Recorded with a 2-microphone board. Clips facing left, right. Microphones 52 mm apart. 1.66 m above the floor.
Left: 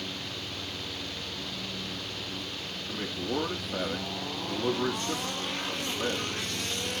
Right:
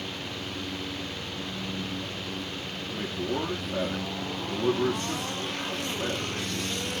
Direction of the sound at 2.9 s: Centre (ahead or behind).